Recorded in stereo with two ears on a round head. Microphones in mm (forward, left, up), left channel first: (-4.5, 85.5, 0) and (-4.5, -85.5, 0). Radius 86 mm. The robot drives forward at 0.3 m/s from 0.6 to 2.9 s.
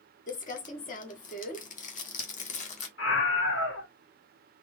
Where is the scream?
65° left (ahead or behind), 1.8 m.